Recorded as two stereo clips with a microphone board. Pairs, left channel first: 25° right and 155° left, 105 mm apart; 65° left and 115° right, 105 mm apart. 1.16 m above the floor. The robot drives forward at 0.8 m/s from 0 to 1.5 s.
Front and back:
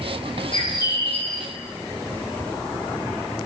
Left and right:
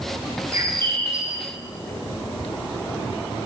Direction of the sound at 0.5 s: 55° right.